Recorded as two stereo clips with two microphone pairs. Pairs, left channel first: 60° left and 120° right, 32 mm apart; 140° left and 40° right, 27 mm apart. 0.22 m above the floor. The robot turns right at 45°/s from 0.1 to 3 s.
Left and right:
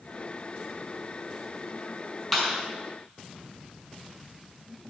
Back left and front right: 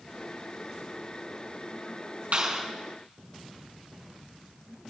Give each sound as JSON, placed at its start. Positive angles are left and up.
{"t": 2.3, "sound": "a clap", "azimuth_deg": -25, "distance_m": 4.5}